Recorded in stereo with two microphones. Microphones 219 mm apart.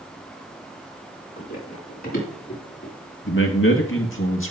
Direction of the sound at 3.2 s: 65° left (ahead or behind).